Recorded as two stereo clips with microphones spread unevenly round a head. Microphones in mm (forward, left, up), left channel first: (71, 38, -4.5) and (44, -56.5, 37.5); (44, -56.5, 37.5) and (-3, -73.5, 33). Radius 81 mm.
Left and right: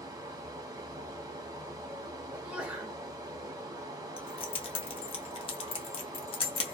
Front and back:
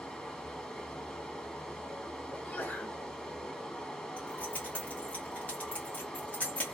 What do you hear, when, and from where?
0.0 s running water: 55° right, 1.0 m
2.3 s a sneeze: 35° right, 1.4 m
4.2 s keys jangling: 45° left, 0.6 m